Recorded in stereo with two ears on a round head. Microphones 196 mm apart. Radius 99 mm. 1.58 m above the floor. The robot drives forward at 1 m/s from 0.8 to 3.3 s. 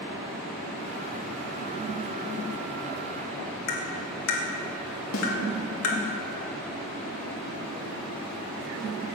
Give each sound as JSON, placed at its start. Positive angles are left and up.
{"t": 3.7, "sound": "tapping", "side_deg": 70, "distance_m": 2.0}
{"t": 5.1, "sound": "a snare drum", "side_deg": 65, "distance_m": 3.5}